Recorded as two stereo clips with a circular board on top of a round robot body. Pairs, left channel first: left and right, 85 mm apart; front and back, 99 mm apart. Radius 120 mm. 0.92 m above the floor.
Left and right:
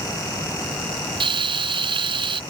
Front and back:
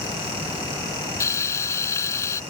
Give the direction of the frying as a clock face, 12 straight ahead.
2 o'clock.